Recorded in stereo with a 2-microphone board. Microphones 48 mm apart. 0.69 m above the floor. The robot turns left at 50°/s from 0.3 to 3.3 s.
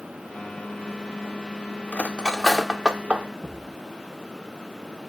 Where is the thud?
85° left, 6.5 m.